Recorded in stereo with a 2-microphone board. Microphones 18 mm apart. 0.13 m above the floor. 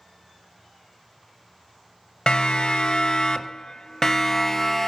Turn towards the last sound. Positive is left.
turn(degrees=15)  # may be behind; listen again after turning